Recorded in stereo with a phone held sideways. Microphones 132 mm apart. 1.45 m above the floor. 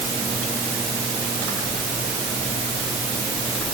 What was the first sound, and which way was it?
Only background noise.